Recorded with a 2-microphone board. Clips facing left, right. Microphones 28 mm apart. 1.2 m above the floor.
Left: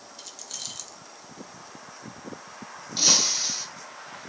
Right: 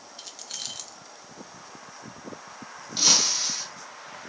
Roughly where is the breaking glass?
Centre.